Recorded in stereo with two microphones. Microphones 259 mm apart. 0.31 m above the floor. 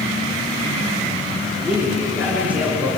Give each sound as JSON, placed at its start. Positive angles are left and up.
{"t": 1.6, "sound": "a man speaking", "side_deg": -10, "distance_m": 4.5}